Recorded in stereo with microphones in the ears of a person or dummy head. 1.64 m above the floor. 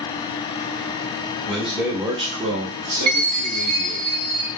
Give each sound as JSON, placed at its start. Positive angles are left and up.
{"t": 1.5, "sound": "a man speaking", "side_deg": 5, "distance_m": 0.7}
{"t": 3.1, "sound": "a chime", "side_deg": -25, "distance_m": 1.2}